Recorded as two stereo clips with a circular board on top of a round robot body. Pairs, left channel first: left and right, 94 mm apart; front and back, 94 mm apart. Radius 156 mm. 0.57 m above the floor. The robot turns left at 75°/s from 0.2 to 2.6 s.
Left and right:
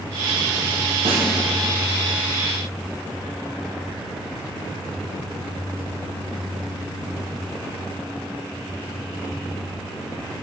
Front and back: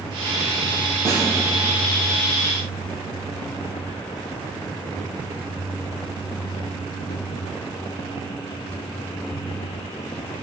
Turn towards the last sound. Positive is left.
turn(degrees=130)